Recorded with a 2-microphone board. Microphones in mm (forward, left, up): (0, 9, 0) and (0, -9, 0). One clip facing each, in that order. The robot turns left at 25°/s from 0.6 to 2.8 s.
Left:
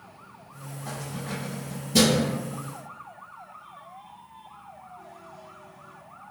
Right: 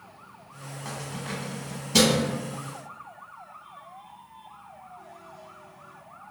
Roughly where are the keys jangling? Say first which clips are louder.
Even; right.